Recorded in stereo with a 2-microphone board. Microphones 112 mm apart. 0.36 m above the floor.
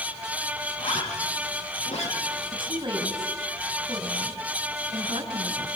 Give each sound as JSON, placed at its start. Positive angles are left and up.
{"t": 0.8, "sound": "a zipper", "side_deg": 75, "distance_m": 7.5}
{"t": 2.5, "sound": "a woman speaking", "side_deg": -40, "distance_m": 5.0}